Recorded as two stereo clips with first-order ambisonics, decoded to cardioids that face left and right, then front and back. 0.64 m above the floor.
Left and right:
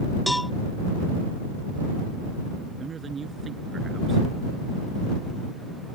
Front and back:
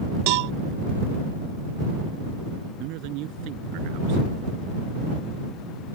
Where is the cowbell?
Straight behind.